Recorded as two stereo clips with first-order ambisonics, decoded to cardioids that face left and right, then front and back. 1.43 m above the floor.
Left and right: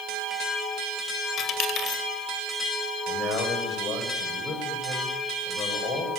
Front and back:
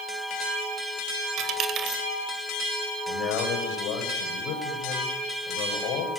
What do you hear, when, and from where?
1.4 s a dropped coin: 140° left, 2 m
3.1 s a man speaking: 35° left, 7 m